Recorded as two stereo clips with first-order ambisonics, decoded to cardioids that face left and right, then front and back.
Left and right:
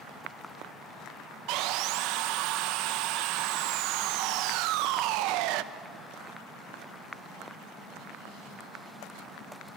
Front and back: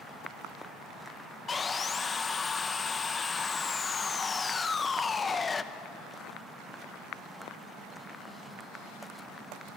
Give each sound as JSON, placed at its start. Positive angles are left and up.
{"t": 1.5, "sound": "sawing", "azimuth_deg": -70, "distance_m": 0.7}